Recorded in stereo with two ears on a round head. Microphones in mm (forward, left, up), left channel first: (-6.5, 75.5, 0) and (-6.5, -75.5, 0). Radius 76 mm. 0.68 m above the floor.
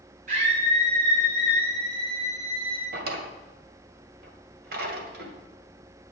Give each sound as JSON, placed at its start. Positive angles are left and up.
{"t": 0.3, "sound": "a scream", "side_deg": -50, "distance_m": 3.0}
{"t": 2.9, "sound": "a drawer", "side_deg": -60, "distance_m": 2.0}